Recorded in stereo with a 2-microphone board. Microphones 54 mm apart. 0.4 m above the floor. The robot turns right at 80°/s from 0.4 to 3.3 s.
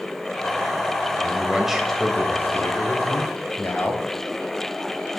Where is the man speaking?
45° right, 2 m; by 4.1 s 125° left, 2 m.